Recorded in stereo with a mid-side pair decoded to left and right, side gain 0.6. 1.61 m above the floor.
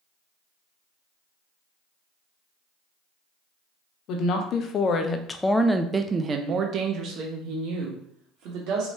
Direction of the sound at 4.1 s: 65° left.